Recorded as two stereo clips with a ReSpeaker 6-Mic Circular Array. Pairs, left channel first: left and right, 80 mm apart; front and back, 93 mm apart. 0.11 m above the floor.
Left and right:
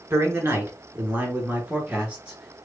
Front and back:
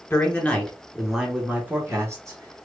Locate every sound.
0.1 s a man speaking: 55° right, 1.6 m; by 2.7 s 165° right, 1.7 m